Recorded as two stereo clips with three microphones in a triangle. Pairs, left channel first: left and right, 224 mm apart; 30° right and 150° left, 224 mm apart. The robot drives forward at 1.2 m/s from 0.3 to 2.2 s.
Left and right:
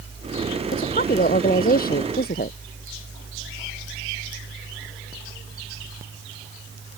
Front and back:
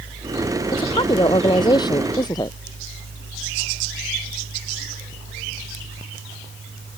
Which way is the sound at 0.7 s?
40° left.